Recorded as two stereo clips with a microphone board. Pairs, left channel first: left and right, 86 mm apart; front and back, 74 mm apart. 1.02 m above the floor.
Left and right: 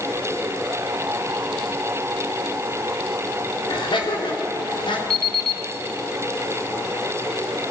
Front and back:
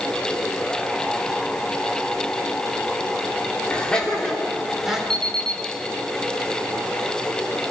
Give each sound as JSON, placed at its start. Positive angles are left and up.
{"t": 3.7, "sound": "laughter", "azimuth_deg": 75, "distance_m": 3.5}
{"t": 5.1, "sound": "an alarm clock", "azimuth_deg": 170, "distance_m": 3.5}